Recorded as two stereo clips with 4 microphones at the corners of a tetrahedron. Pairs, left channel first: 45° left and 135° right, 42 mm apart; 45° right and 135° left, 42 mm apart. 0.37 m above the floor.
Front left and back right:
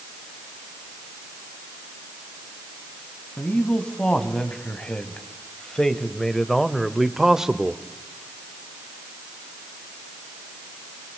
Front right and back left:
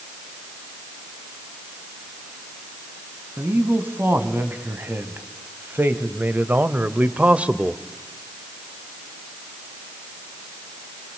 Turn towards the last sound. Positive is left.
turn(degrees=180)